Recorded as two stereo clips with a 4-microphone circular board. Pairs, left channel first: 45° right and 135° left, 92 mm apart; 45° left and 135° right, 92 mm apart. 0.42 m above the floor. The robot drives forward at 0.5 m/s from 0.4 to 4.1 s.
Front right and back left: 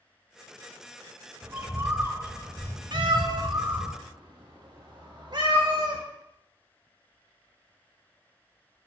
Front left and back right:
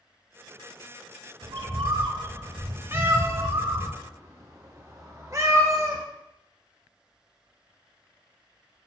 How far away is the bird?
About 0.5 m.